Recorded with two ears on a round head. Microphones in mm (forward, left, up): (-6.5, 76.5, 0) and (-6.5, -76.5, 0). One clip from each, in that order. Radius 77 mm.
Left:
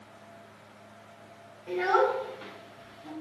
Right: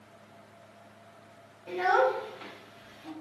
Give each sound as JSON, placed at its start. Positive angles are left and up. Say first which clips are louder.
{"t": 1.7, "sound": "a child speaking", "louder": "even", "side_deg": -10, "distance_m": 2.5}